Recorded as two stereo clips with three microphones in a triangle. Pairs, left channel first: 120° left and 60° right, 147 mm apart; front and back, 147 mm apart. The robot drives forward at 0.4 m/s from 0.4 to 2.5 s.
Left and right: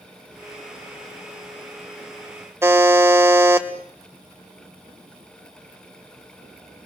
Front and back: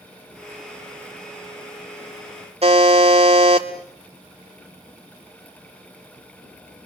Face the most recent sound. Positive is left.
turn(degrees=-130)